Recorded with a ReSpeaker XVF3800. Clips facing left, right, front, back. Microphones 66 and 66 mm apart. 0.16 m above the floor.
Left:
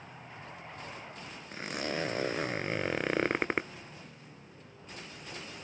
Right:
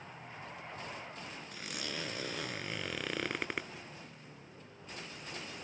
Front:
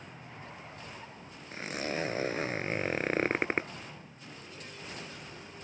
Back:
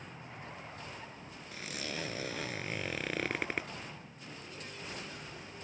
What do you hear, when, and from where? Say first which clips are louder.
1.5 s a zipper: left 9 dB, front 7 dB; 45° left